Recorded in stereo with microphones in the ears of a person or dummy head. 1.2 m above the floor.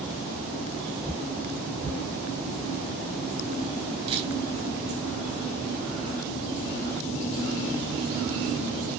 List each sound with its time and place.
4.1 s a camera shutter: 30° right (ahead or behind), 4.5 m